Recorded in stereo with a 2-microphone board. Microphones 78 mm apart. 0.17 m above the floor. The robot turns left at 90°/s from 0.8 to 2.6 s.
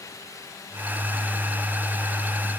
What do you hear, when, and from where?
Only background noise.